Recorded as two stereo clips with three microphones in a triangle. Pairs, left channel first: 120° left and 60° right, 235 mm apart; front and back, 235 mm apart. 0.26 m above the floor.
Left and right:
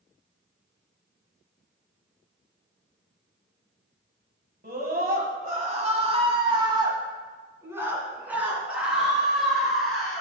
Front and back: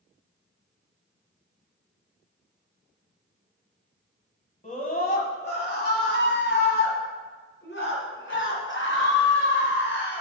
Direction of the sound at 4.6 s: 40° right.